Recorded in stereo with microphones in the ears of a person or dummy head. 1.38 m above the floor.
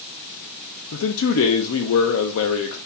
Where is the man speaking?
75° left (ahead or behind), 0.5 m.